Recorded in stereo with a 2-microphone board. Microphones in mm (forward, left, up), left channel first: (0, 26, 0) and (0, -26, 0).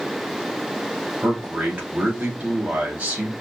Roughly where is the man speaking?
Right.